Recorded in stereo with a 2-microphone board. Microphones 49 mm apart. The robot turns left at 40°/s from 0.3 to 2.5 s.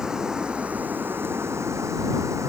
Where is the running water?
15° right; by 2.5 s 100° right.